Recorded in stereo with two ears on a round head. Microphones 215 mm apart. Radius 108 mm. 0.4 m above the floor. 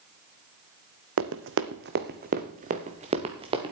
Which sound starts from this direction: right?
Running footsteps, at 1.2 s.